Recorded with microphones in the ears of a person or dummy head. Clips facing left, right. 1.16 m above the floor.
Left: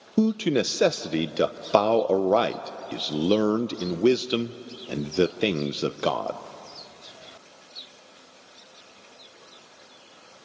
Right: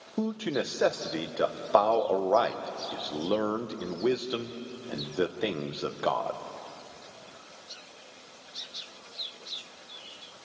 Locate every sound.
0.2 s a man speaking: 40° left (ahead or behind), 0.5 m